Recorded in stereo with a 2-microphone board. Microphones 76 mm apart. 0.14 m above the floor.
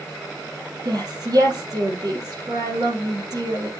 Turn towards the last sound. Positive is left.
turn(degrees=-55)  # may be behind; listen again after turning